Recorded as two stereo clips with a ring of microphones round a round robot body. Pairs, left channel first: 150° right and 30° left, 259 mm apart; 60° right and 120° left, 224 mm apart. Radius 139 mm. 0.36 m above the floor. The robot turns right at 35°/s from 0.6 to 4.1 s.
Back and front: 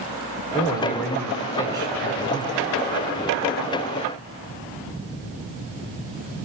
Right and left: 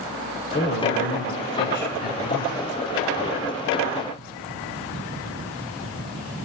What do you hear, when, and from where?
0.5 s a man speaking: 85° right, 2 m; by 2.8 s 5° right, 2 m